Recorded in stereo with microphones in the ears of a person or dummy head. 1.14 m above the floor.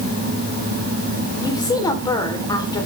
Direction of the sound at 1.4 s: 20° left (ahead or behind).